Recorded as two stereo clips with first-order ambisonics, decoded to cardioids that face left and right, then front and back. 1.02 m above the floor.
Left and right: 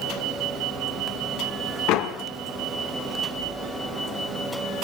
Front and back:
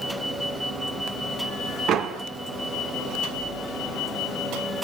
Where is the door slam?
125° left, 2.0 m.